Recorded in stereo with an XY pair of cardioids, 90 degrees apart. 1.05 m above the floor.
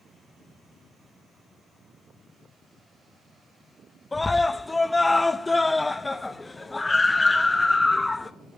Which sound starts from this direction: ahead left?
A scream, at 4.1 s.